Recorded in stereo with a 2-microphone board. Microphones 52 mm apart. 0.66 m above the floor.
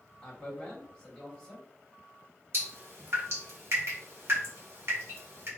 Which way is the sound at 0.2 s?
10° left (ahead or behind).